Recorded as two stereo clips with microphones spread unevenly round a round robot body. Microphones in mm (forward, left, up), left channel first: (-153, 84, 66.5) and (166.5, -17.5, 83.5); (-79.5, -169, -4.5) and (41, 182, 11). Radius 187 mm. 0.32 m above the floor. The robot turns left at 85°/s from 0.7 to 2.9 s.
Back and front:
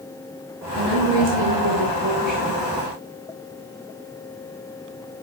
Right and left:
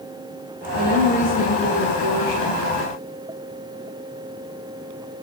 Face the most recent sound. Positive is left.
turn(degrees=-160)